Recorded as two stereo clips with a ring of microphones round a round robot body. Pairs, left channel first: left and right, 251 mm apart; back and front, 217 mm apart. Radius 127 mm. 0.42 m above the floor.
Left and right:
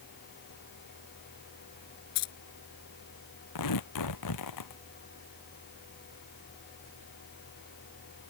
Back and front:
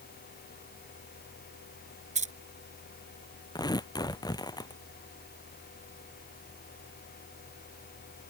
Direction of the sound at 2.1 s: 60° left.